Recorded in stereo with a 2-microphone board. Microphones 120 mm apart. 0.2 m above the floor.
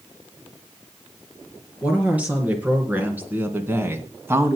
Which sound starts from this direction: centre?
A woman speaking, at 1.8 s.